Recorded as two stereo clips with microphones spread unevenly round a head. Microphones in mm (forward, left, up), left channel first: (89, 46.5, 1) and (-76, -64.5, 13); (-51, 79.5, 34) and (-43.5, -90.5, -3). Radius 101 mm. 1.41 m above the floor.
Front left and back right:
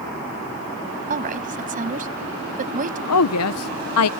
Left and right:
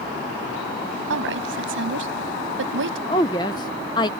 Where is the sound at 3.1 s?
25° left.